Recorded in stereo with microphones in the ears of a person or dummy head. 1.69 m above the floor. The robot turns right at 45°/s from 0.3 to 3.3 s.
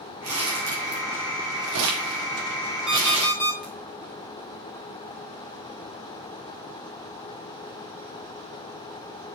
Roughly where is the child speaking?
I don't hear a child speaking.